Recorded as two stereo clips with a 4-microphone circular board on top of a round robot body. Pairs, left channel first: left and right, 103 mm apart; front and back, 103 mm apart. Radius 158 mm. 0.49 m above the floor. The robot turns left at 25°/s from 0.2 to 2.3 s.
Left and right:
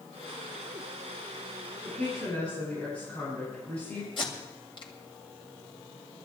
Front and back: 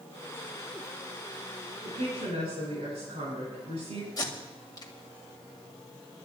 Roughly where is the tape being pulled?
Ahead left.